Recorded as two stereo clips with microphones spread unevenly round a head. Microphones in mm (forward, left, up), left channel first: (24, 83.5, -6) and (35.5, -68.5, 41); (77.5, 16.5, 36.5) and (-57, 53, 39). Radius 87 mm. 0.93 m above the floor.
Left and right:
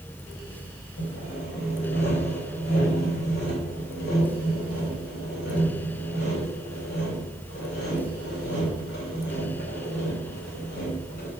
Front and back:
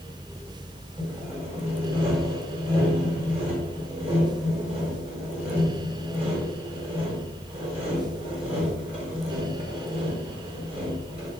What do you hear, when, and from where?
1.0 s sawing: 115° left, 4 m